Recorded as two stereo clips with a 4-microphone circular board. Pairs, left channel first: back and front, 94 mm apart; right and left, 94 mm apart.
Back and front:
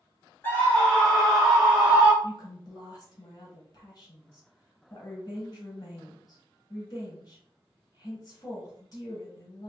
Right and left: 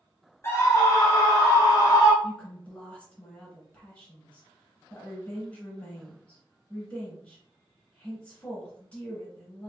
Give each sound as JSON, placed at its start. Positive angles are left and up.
{"t": 0.4, "sound": "a scream", "azimuth_deg": -125, "distance_m": 1.7}
{"t": 2.2, "sound": "a woman speaking", "azimuth_deg": -160, "distance_m": 2.0}